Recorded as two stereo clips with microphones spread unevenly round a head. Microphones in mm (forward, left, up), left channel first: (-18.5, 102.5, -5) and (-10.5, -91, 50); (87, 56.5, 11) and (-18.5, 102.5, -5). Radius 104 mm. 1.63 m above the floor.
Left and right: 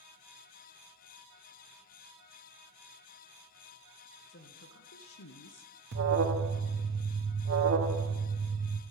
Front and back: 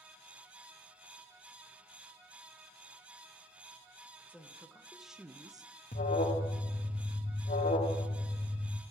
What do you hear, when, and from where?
4.3 s a woman speaking: 50° left, 1.5 m; by 5.7 s 105° left, 0.6 m
5.9 s an alarm: 50° right, 0.9 m